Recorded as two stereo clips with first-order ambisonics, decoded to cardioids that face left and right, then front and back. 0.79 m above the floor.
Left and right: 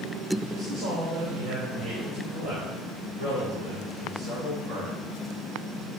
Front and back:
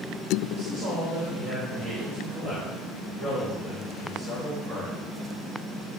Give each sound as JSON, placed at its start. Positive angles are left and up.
{"t": 0.5, "sound": "a man speaking", "azimuth_deg": -125, "distance_m": 1.9}